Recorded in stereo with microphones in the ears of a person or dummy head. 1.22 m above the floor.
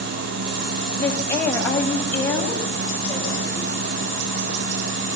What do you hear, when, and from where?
1.0 s a woman speaking: 15° left (ahead or behind), 5.5 m